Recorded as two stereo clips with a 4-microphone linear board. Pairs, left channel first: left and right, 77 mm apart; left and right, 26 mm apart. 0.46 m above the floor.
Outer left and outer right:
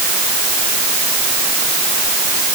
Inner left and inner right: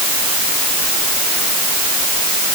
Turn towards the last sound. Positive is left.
No sound to turn to.